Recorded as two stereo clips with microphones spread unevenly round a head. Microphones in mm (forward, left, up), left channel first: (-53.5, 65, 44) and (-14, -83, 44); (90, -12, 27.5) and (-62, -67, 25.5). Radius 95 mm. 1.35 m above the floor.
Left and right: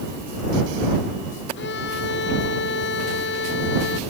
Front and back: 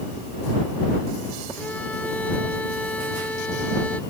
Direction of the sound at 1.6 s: 105° left.